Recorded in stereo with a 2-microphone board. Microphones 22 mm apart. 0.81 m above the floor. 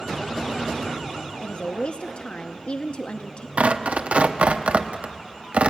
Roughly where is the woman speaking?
Left.